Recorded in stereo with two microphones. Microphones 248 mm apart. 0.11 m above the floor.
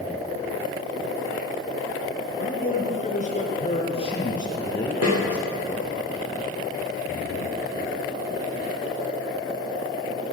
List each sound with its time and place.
2.4 s a man speaking: 40° left (ahead or behind), 2 m; by 5.9 s centre (ahead or behind), 2 m
5.0 s a snare drum: 75° right (ahead or behind), 6 m